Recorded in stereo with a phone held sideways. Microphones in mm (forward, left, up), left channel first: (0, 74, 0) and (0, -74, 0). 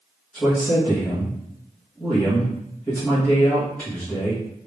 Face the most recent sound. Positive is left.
turn(degrees=10)  # may be behind; listen again after turning